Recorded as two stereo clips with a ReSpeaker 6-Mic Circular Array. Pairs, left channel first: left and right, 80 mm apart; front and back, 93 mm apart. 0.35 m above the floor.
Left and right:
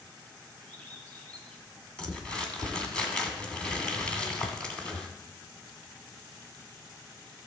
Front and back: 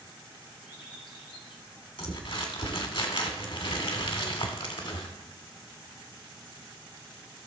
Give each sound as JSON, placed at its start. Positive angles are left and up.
{"t": 0.6, "sound": "a bird", "azimuth_deg": 15, "distance_m": 2.0}
{"t": 2.0, "sound": "crumpling", "azimuth_deg": 15, "distance_m": 1.8}